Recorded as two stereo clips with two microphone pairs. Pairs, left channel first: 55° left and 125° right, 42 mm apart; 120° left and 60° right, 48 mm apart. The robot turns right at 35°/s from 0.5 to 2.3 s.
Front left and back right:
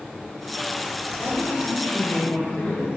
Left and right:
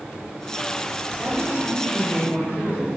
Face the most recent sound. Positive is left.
turn(degrees=85)